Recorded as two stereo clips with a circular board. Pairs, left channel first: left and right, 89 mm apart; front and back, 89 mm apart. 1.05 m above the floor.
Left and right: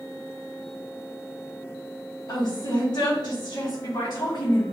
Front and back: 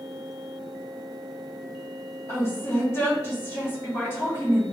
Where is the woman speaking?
50° left, 1.2 m.